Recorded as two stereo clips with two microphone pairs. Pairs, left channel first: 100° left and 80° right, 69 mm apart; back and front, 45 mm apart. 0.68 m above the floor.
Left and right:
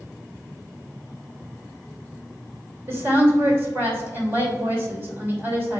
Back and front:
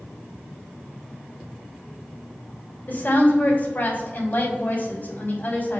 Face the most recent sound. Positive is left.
turn(degrees=-135)